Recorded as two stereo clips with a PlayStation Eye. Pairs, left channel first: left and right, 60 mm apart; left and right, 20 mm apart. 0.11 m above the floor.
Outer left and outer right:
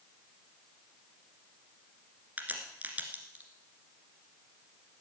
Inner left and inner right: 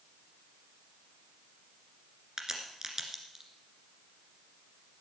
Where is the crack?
25° right (ahead or behind), 1.9 m.